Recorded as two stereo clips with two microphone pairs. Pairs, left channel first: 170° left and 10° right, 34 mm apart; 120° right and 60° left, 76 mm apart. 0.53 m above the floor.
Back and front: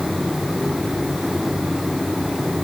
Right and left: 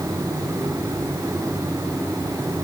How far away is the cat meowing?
No cat meowing in this recording.